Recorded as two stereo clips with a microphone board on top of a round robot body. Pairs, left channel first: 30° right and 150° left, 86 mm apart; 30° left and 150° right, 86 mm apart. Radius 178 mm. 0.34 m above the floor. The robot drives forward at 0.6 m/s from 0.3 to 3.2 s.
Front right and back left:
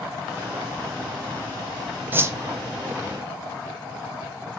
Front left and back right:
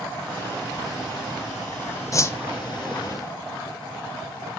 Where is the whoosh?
80° left, 0.7 m; by 2.4 s 95° left, 0.7 m.